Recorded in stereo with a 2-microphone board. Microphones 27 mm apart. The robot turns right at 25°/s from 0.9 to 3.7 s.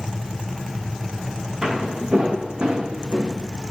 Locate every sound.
1.6 s footsteps: 40° right (ahead or behind), 4.5 m; by 3.3 s 55° right (ahead or behind), 2.5 m